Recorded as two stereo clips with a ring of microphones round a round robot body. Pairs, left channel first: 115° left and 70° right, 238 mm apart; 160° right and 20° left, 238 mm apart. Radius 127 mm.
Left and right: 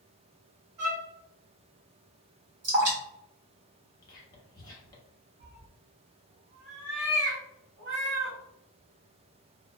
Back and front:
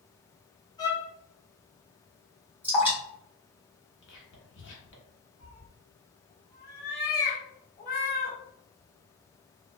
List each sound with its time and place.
0.8 s a violin: 85° right, 0.9 m
2.6 s dripping: 60° right, 1.7 m
4.0 s whispering: 175° right, 1.1 m
5.4 s a cat meowing: 110° right, 1.0 m